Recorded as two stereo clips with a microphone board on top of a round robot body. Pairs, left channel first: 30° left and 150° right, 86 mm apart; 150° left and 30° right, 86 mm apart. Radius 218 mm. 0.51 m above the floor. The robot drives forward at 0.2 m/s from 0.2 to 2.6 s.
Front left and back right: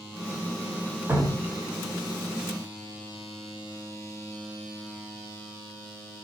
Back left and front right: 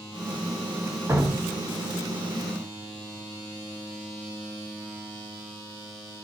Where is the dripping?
95° right, 1.1 m; by 1.6 s 100° right, 1.1 m.